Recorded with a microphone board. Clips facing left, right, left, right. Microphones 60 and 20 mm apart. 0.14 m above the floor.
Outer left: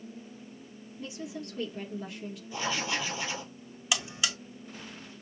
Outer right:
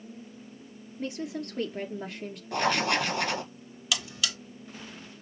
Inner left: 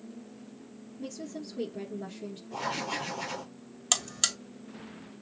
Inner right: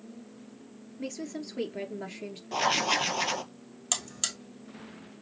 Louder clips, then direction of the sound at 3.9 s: Outer left 1 dB, inner left 4 dB; 25° left (ahead or behind).